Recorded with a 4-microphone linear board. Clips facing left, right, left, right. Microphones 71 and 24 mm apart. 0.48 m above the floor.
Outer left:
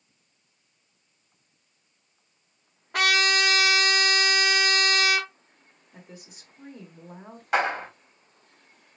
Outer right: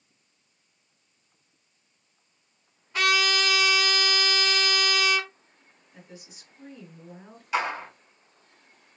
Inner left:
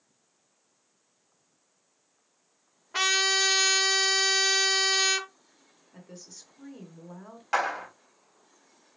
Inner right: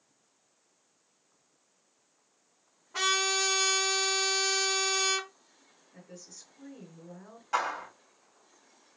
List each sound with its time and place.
2.9 s a trumpet: 60° left (ahead or behind), 1.0 m
5.9 s a woman speaking: 50° left (ahead or behind), 1.5 m
7.5 s a clap: 55° left (ahead or behind), 1.7 m